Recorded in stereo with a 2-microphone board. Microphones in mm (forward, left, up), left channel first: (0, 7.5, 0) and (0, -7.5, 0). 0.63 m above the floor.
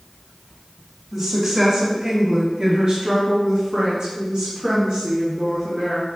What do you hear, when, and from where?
1.1 s a woman speaking: 20° right (ahead or behind), 1.4 m; by 6.1 s 45° right (ahead or behind), 2.5 m